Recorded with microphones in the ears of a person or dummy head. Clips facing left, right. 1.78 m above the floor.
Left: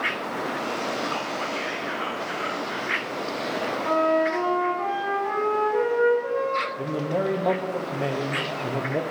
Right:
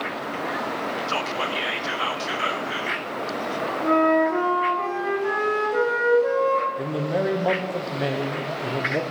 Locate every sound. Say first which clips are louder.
1.1 s whispering: right 2 dB; 50° right (ahead or behind), 0.7 m
3.8 s a flute: right 3 dB; 70° right (ahead or behind), 2.5 m
6.8 s a man speaking: right 1 dB; 5° right (ahead or behind), 0.6 m